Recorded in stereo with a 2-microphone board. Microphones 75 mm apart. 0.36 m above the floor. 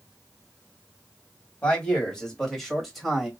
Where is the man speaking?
15° left (ahead or behind), 2.5 m; by 3.3 s 5° right (ahead or behind), 2 m.